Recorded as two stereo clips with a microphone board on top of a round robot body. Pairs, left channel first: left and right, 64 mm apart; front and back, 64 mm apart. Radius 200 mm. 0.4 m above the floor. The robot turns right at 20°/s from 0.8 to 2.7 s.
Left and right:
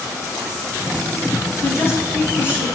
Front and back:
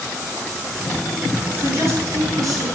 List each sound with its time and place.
1.6 s a woman speaking: 130° left, 5 m; by 2.6 s 150° left, 5 m